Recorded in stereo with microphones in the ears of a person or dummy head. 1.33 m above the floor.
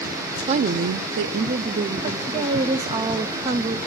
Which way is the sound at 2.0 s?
25° right (ahead or behind).